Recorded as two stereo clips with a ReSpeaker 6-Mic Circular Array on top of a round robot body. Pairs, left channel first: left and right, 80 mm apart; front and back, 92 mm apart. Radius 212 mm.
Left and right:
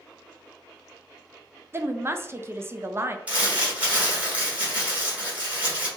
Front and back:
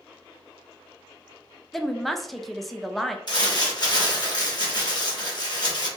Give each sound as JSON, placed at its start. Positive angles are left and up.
{"t": 1.7, "sound": "a woman speaking", "azimuth_deg": -85, "distance_m": 0.6}
{"t": 3.3, "sound": "crumpling", "azimuth_deg": -20, "distance_m": 1.8}